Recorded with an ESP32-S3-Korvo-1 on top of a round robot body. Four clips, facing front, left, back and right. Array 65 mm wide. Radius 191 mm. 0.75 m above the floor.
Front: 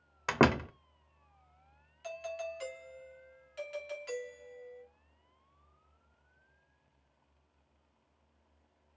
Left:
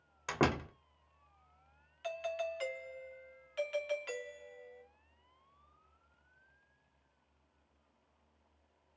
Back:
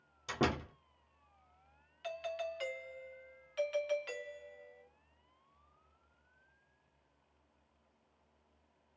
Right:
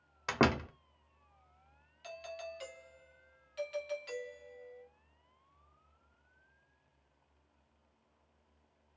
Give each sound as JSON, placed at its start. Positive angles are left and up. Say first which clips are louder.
{"t": 0.3, "sound": "a door slam", "louder": "right 2 dB, front 8 dB", "azimuth_deg": -10, "distance_m": 0.9}
{"t": 2.0, "sound": "a doorbell", "louder": "left 7 dB, even", "azimuth_deg": 125, "distance_m": 1.6}